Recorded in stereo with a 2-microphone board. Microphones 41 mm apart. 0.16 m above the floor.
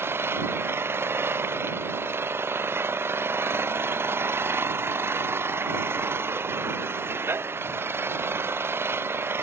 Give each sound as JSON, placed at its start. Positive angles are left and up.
{"t": 0.0, "sound": "an engine running", "side_deg": -70}